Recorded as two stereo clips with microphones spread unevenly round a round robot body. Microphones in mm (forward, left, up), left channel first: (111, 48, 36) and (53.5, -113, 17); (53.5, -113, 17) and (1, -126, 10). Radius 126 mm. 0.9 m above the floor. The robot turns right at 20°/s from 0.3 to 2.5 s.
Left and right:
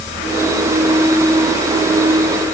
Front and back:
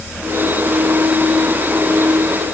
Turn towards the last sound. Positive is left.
No sound to turn to.